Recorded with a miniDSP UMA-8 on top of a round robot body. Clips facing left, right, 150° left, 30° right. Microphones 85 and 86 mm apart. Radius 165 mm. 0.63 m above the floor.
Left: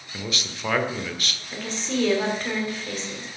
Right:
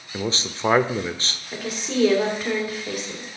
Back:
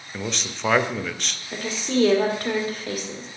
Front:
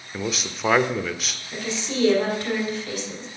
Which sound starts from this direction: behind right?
A man speaking, at 0.1 s.